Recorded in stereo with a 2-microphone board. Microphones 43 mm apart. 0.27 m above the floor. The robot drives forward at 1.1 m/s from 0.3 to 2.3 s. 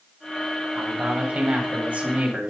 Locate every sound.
0.8 s a man speaking: 25° right (ahead or behind), 1.5 m; by 2.5 s 30° right (ahead or behind), 1.3 m